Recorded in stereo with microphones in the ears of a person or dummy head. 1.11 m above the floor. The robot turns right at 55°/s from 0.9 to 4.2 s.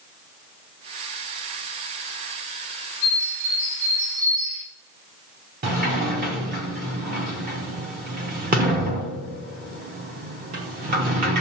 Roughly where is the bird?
Behind.